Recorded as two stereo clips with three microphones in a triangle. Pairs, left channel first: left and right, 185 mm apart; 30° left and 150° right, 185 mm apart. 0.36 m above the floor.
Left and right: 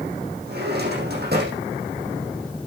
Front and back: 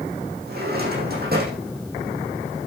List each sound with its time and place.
0.5 s a drawer: 120° right, 4.5 m